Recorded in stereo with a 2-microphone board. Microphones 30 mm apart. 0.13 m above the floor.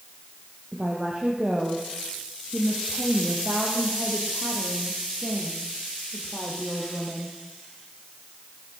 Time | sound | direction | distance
0.7 | a woman speaking | 35° right (ahead or behind) | 7 m